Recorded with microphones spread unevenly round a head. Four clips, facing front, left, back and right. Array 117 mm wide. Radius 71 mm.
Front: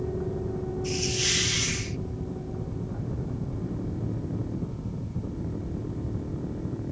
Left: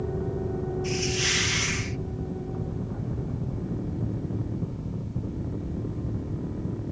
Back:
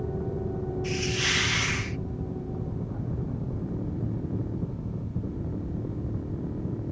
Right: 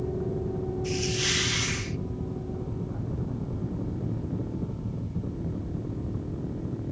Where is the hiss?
170° left.